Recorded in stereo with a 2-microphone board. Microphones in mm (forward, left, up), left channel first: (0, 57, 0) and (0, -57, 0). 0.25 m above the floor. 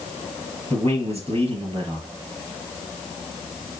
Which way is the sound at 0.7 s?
60° right (ahead or behind).